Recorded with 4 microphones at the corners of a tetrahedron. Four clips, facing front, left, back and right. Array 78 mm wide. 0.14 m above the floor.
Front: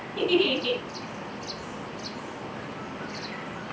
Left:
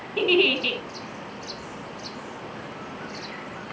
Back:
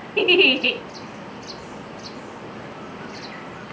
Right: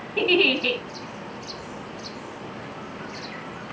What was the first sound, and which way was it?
A giggle, 170° right.